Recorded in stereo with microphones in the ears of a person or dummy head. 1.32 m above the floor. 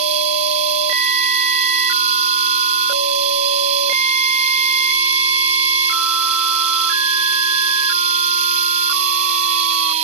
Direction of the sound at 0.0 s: 35° right (ahead or behind).